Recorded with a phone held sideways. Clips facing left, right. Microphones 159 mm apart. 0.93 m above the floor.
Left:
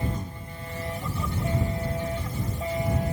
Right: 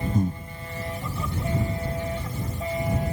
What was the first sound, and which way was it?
Breathing, 50° right (ahead or behind).